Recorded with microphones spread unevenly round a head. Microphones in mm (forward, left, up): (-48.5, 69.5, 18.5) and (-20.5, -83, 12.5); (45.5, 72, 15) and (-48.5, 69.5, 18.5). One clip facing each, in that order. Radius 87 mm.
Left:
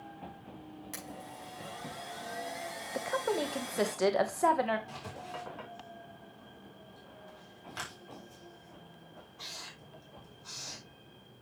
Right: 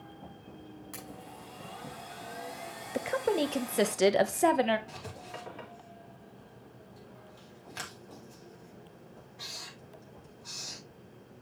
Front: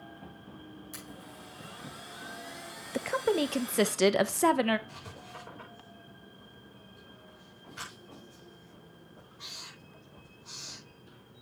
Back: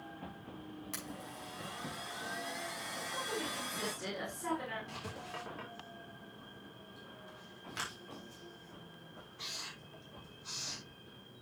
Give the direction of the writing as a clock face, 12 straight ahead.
5 o'clock.